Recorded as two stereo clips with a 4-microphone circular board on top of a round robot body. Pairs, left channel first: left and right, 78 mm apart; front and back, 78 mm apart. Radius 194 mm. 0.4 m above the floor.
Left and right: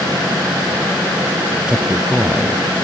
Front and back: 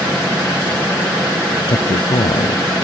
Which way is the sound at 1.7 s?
10° right.